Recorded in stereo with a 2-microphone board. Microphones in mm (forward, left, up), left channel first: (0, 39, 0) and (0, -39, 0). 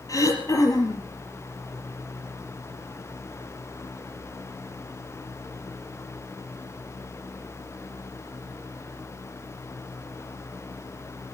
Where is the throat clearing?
45° left (ahead or behind), 4 m.